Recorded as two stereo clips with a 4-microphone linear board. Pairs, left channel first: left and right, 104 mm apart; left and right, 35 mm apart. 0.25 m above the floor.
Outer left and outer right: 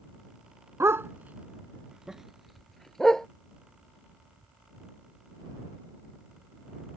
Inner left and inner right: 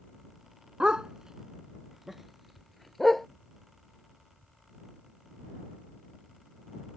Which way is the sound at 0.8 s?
25° right (ahead or behind).